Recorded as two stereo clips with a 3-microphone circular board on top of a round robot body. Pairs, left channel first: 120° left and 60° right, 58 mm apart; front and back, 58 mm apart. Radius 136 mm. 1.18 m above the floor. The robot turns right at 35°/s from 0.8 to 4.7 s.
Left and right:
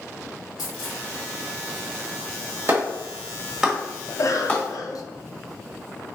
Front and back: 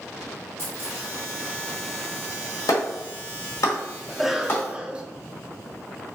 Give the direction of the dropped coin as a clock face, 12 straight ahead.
8 o'clock.